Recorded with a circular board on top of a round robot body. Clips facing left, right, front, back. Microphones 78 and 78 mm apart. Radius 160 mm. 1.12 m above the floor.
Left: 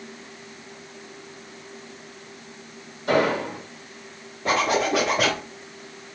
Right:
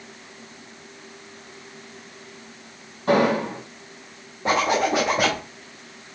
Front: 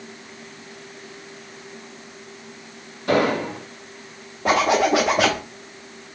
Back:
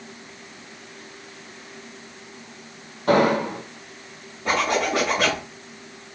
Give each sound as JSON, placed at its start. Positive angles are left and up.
{"t": 3.1, "sound": "an explosion", "azimuth_deg": -140, "distance_m": 2.5}
{"t": 4.5, "sound": "a zipper", "azimuth_deg": -20, "distance_m": 0.6}